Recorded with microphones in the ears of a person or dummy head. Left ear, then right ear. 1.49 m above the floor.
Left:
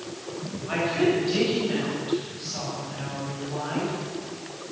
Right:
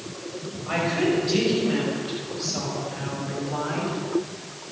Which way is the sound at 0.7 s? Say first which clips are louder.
Even; 10° right (ahead or behind).